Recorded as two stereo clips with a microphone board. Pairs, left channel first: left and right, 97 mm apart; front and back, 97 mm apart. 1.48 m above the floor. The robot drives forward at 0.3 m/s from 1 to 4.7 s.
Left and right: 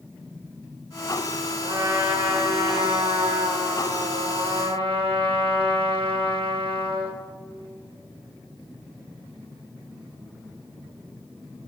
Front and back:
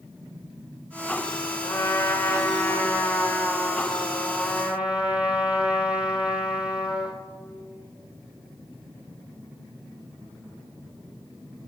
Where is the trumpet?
55° right, 1.3 m; by 7.2 s 100° right, 1.1 m.